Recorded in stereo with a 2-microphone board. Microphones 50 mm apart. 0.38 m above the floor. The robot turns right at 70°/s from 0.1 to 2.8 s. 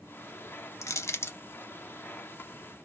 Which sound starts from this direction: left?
Crushing, at 0.8 s.